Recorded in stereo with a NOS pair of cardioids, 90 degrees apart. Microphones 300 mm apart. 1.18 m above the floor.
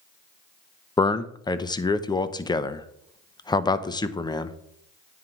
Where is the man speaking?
15° left, 0.7 m.